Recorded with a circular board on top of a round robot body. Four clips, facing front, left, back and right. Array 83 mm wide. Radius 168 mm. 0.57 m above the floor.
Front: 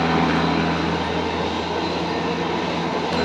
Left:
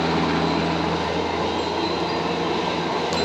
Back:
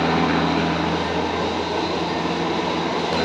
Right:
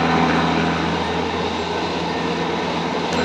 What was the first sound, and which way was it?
A helicopter, 85° right.